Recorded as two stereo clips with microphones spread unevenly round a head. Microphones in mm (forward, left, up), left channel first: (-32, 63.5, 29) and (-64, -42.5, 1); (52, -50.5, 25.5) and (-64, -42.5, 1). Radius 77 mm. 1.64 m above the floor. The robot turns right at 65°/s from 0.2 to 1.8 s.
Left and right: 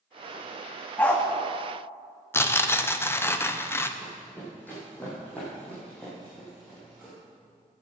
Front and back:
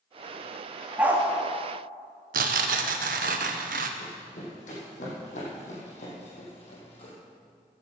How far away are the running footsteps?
About 5.5 m.